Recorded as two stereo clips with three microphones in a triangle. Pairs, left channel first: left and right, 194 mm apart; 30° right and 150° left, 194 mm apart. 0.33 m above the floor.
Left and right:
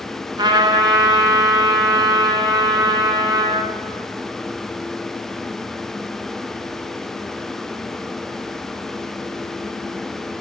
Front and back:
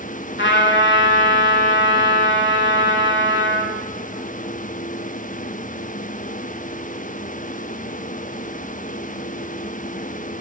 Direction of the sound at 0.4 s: 20° right.